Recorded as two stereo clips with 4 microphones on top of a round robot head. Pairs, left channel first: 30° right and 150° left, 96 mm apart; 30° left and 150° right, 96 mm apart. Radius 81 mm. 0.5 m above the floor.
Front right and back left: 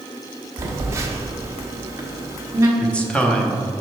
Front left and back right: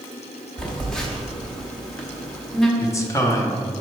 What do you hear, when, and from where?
0.6 s a phone buzzing: 110° left, 1.2 m
2.8 s a man speaking: 35° left, 0.9 m